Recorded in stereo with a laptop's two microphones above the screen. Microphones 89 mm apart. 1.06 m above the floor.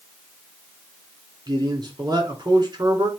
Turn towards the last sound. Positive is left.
turn(degrees=-50)  # may be behind; listen again after turning